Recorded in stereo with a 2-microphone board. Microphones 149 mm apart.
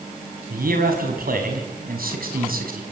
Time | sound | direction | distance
0.5 | a man speaking | 75° right (ahead or behind) | 5 m